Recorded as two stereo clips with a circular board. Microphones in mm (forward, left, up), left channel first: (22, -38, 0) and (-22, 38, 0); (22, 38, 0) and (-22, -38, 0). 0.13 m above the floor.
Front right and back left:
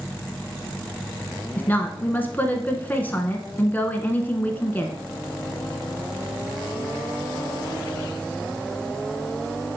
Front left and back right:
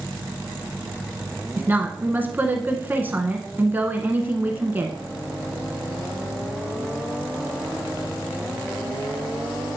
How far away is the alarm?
No alarm in this recording.